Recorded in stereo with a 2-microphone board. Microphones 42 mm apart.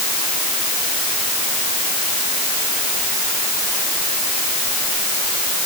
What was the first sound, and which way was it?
Only background noise.